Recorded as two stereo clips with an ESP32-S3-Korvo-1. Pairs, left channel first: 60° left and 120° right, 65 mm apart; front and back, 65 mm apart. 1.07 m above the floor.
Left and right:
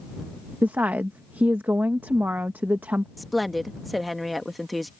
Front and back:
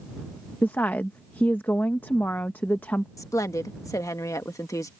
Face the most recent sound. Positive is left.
turn(degrees=-30)